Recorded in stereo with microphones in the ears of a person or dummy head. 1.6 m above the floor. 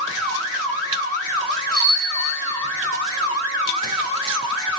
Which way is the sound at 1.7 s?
20° left (ahead or behind).